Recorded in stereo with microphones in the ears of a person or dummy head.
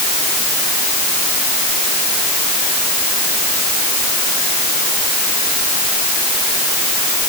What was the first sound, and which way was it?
Only background noise.